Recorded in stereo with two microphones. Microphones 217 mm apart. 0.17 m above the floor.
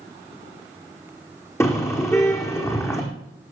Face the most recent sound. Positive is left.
turn(degrees=15)  # may be behind; listen again after turning